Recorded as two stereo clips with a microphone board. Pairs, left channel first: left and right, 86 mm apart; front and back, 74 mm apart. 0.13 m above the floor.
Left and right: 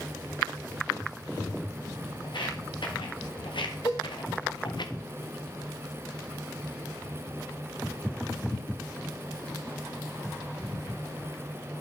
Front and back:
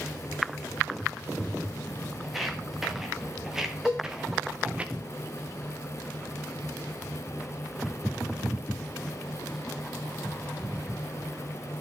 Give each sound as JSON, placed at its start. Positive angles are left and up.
{"t": 2.2, "sound": "footsteps", "azimuth_deg": 95, "distance_m": 3.0}
{"t": 3.9, "sound": "a cowbell", "azimuth_deg": 95, "distance_m": 6.0}